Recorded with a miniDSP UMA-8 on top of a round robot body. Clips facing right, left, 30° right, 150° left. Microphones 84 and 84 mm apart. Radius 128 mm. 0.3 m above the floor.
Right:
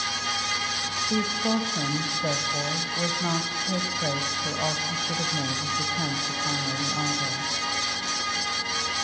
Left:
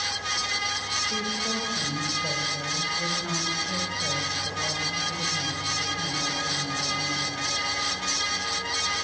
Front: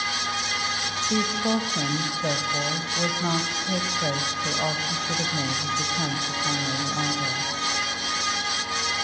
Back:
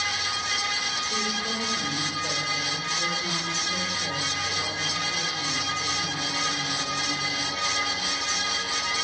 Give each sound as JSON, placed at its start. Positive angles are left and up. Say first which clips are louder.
{"t": 1.1, "sound": "a woman speaking", "louder": "right 9 dB, front 9 dB", "azimuth_deg": -60, "distance_m": 2.0}